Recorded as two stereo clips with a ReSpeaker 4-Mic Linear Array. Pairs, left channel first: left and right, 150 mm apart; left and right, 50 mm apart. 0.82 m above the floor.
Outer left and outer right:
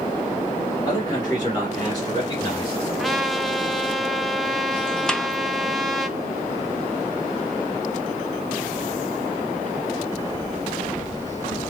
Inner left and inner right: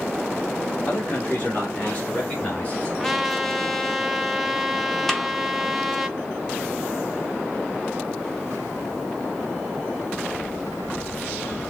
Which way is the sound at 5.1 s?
5° left (ahead or behind).